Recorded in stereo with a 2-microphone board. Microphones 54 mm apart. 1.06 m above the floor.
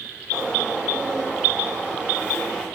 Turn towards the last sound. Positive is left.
turn(degrees=-20)  # may be behind; listen again after turning